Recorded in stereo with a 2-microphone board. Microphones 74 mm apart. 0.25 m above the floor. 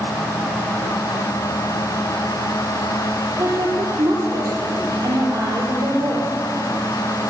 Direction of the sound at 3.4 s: 55° right (ahead or behind).